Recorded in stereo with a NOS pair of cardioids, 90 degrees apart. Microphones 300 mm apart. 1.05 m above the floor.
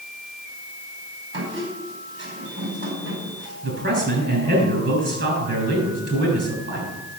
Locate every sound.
1.3 s a squeak: 40° right, 5 m
3.6 s a man speaking: 35° right, 7.5 m